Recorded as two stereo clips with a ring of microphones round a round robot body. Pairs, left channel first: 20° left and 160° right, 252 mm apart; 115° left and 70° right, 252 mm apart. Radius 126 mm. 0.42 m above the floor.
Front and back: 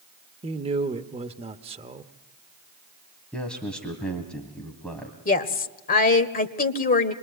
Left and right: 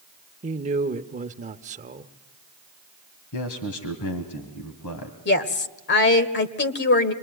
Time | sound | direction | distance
0.4 | a man speaking | 105° right | 0.8 m
3.3 | a man speaking | 110° left | 2.5 m
5.2 | a woman speaking | 75° left | 1.6 m